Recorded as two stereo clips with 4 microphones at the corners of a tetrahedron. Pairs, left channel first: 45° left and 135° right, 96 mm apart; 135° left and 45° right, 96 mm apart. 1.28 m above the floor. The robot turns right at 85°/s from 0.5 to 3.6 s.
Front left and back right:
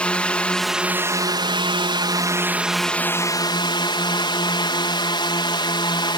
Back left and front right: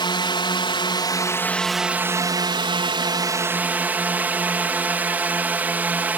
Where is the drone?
120° left; by 6.2 s 25° left.